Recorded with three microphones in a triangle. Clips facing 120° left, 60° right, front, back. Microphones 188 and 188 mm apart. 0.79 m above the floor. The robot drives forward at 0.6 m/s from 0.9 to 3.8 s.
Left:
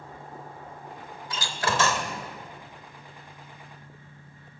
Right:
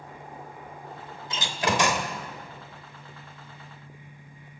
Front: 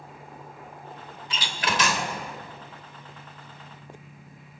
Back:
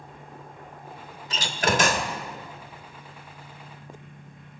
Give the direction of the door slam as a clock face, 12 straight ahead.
4 o'clock.